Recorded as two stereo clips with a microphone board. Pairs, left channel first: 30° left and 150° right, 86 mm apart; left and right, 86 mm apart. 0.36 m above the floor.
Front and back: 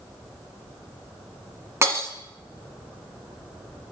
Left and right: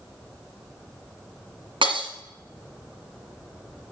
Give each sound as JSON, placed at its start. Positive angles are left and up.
{"t": 1.8, "sound": "breaking glass", "azimuth_deg": -95, "distance_m": 2.0}